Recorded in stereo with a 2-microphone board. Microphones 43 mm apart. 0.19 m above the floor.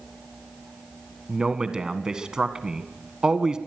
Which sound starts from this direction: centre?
A man speaking, at 1.3 s.